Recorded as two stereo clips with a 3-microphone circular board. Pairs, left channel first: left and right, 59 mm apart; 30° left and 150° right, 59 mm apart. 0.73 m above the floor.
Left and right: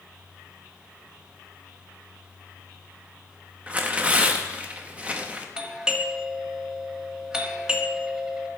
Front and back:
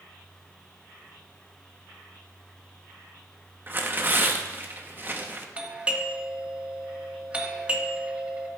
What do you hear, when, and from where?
3.7 s tearing paper: 140° right, 0.8 m
5.6 s a doorbell: 140° right, 1.1 m